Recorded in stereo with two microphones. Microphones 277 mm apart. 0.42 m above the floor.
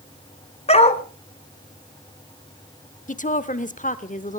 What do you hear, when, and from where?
0.7 s a dog barking: 25° left (ahead or behind), 1.0 m
3.1 s a woman speaking: 30° left (ahead or behind), 0.9 m